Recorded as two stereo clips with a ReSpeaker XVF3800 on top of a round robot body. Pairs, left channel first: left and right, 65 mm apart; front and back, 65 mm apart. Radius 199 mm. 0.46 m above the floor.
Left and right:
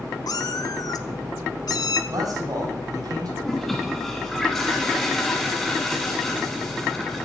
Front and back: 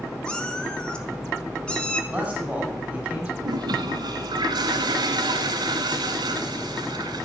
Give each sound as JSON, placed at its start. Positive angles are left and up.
{"t": 0.3, "sound": "a cat meowing", "azimuth_deg": 80, "distance_m": 1.6}
{"t": 2.1, "sound": "a man speaking", "azimuth_deg": -105, "distance_m": 5.5}
{"t": 3.4, "sound": "a toilet flushing", "azimuth_deg": 175, "distance_m": 0.5}